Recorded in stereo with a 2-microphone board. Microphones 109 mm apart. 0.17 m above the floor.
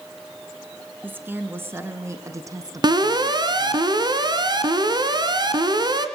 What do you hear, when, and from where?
1.0 s a woman speaking: 15° right (ahead or behind), 2 m; by 3.8 s 35° right (ahead or behind), 1.5 m
2.8 s an alarm: 40° right (ahead or behind), 2 m